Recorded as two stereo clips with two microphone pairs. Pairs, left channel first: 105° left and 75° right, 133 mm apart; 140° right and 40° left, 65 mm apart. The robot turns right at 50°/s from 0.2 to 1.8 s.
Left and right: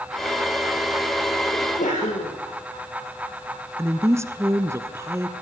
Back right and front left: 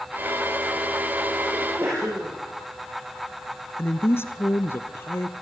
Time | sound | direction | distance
1.5 | a sneeze | 80° left | 7.5 m
3.8 | a woman speaking | 125° right | 1.4 m